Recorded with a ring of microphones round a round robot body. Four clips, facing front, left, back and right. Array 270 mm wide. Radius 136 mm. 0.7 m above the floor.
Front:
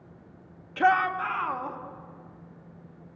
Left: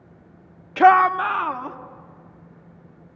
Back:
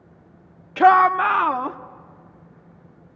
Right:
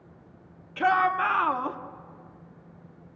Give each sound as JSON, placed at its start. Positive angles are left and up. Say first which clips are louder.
{"t": 0.8, "sound": "a shout", "louder": "left 9 dB, back 9 dB", "azimuth_deg": 120, "distance_m": 0.7}